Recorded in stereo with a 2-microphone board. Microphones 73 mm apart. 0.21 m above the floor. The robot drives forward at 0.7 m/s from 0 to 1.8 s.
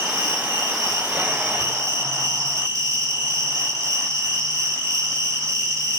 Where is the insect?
60° right (ahead or behind), 3.5 m; by 6.0 s 45° right (ahead or behind), 4 m.